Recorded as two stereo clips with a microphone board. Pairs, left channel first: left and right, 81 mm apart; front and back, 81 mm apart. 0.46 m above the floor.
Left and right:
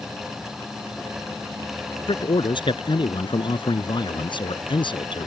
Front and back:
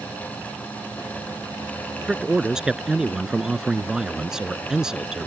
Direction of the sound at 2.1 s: 100° left.